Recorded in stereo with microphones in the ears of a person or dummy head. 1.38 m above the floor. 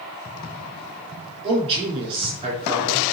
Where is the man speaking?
30° right (ahead or behind), 4 m.